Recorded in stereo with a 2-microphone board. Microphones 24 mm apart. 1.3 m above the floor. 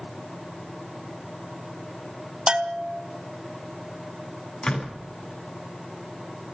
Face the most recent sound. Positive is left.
turn(degrees=60)  # may be behind; listen again after turning